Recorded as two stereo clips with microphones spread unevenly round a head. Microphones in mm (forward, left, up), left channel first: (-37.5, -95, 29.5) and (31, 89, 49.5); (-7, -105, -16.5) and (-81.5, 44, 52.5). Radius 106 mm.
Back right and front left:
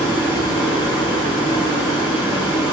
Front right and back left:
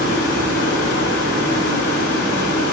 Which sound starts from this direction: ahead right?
Running water, at 0.0 s.